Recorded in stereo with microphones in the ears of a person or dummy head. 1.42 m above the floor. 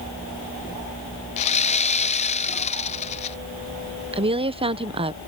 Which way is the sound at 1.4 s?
40° left (ahead or behind).